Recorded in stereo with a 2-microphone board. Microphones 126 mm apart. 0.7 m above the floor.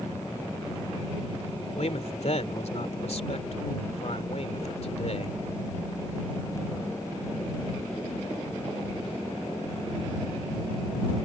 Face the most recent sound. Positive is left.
turn(degrees=65)  # may be behind; listen again after turning